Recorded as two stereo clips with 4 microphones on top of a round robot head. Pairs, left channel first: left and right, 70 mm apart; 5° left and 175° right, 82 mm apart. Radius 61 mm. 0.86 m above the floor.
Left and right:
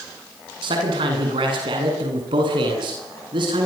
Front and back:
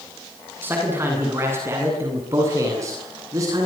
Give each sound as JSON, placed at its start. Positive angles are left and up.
{"t": 0.6, "sound": "a man speaking", "azimuth_deg": -105, "distance_m": 8.5}